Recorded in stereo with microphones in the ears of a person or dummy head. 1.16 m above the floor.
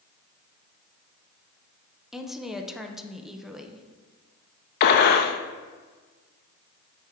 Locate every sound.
2.1 s a woman speaking: centre (ahead or behind), 0.5 m
4.8 s a gunshot: 65° left (ahead or behind), 0.7 m